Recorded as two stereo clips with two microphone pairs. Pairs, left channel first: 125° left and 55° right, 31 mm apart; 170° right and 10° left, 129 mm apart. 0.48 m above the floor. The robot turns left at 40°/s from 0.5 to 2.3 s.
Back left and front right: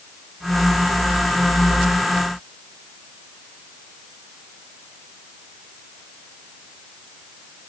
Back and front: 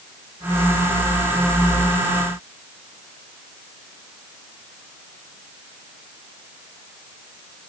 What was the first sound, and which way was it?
Only background noise.